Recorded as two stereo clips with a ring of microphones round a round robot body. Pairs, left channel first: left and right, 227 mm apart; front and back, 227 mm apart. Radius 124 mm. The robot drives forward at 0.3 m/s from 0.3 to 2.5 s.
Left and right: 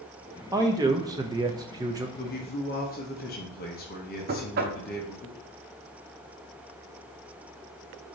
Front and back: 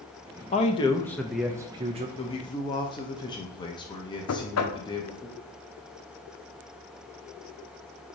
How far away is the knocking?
About 0.5 m.